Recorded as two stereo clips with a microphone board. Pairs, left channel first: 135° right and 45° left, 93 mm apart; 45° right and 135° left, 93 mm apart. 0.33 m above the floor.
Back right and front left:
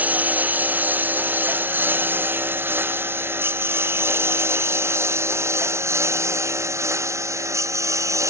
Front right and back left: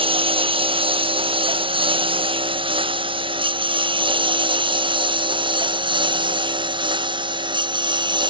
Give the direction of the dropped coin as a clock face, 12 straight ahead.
No dropped coin in this recording.